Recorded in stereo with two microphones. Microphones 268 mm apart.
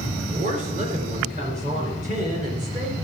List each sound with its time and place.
0.3 s a woman speaking: 30° right (ahead or behind), 2.5 m